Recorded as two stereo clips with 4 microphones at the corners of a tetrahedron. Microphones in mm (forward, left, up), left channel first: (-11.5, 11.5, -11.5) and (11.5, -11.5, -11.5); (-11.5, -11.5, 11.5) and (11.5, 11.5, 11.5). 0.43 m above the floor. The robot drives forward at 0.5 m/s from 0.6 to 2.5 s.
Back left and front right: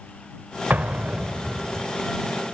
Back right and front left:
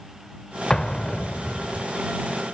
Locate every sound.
0.7 s an explosion: 65° right, 0.7 m; by 1.9 s 115° right, 0.7 m